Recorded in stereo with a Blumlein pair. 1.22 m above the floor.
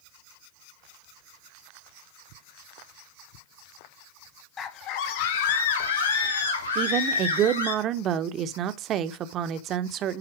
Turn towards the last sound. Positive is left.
turn(degrees=-30)